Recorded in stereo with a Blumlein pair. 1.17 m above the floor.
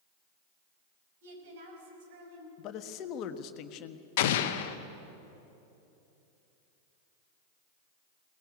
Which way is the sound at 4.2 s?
50° left.